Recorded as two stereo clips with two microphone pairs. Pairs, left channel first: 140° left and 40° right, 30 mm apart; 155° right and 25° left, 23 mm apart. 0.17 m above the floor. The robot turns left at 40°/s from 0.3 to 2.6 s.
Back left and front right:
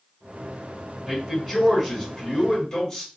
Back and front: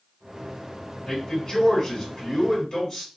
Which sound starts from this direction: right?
A man speaking, at 1.1 s.